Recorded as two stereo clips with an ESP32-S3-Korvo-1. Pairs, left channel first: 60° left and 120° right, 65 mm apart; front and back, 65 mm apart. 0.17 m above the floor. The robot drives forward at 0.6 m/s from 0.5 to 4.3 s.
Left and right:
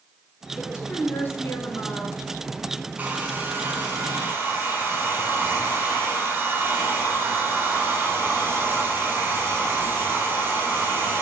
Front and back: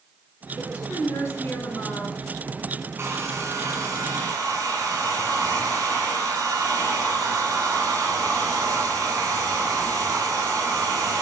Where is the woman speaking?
15° left, 2.5 m; by 2.1 s 25° left, 1.7 m.